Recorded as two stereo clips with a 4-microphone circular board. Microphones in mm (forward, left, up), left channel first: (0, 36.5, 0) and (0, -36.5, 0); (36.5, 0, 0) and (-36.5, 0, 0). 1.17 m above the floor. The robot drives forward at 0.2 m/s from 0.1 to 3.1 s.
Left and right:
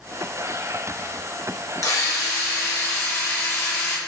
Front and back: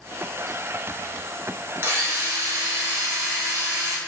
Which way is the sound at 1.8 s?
125° left.